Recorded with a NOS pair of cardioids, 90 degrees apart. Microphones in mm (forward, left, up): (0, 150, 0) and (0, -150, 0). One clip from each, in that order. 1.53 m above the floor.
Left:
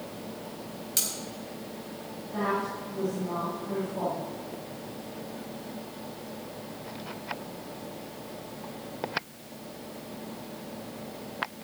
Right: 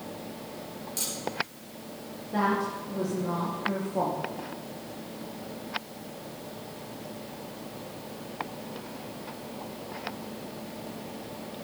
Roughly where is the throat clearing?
No throat clearing in this recording.